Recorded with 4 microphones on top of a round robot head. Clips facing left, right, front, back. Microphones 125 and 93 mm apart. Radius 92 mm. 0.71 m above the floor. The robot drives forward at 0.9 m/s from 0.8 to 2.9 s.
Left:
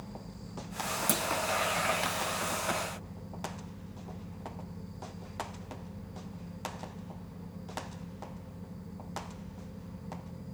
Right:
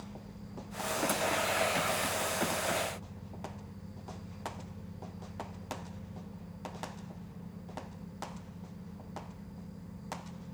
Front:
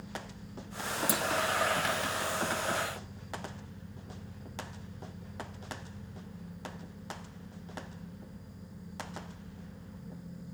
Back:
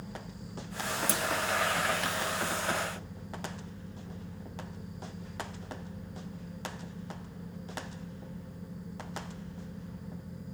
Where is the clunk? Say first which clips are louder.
Left 1 dB, front 2 dB; 75° left, 0.6 m; by 1.2 s 90° left, 0.6 m.